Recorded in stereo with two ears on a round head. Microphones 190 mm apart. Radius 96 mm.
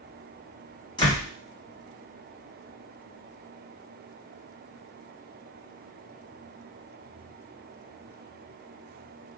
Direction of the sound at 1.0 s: 20° left (ahead or behind).